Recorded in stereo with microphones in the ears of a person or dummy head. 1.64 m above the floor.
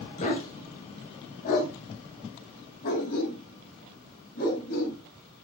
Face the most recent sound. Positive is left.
turn(degrees=55)  # may be behind; listen again after turning